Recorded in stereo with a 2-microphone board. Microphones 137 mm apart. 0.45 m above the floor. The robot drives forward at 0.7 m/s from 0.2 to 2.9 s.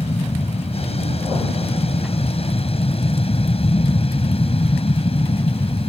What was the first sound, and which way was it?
An aircraft, 50° left (ahead or behind).